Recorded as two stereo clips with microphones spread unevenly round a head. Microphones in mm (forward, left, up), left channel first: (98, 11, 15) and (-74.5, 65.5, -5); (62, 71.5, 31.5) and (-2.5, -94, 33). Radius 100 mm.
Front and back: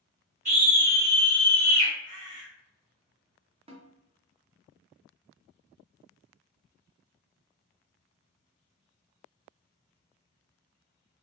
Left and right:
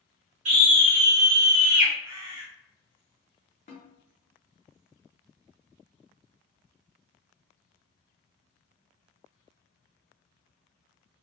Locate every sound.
0.5 s a scream: 125° right, 1.2 m; by 1.9 s 150° left, 0.9 m
2.0 s a bird: 130° right, 0.8 m
3.7 s a snare drum: 110° left, 0.6 m